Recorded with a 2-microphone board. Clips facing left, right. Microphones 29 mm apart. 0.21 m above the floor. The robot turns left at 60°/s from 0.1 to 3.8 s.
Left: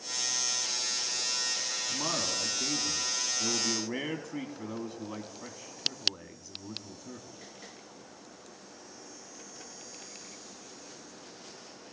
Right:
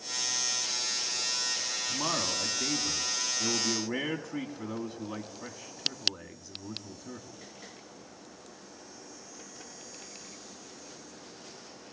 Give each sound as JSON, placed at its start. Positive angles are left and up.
{"t": 1.9, "sound": "a man speaking", "azimuth_deg": -50, "distance_m": 2.0}